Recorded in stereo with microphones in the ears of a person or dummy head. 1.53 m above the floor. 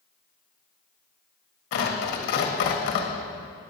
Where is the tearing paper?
60° left (ahead or behind), 1.6 m.